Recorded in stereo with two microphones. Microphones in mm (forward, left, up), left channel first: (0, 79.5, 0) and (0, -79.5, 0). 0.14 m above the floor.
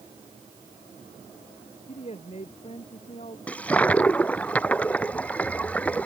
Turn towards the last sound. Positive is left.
turn(degrees=10)  # may be behind; listen again after turning